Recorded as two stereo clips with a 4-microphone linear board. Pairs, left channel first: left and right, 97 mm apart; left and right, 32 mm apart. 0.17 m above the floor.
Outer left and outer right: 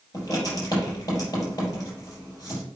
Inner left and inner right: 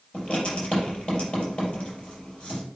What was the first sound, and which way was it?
Writing, 35° left (ahead or behind).